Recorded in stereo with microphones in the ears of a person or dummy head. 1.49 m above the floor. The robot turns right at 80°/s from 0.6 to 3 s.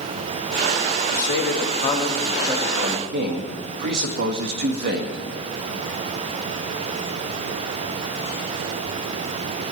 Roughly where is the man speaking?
Left.